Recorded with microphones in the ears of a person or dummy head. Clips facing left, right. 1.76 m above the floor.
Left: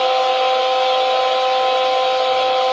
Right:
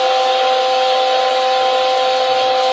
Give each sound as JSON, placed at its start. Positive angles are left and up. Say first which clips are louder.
{"t": 0.0, "sound": "a fan", "louder": "right 2 dB", "side_deg": -20, "distance_m": 3.0}